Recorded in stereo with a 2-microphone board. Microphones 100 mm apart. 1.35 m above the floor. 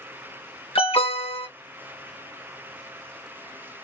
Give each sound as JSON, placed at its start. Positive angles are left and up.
{"t": 0.8, "sound": "an alarm", "side_deg": 80, "distance_m": 1.7}